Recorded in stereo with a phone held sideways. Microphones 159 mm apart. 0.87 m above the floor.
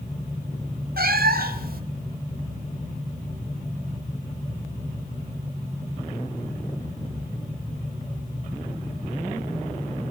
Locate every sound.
1.0 s a cat meowing: 65° right (ahead or behind), 1.2 m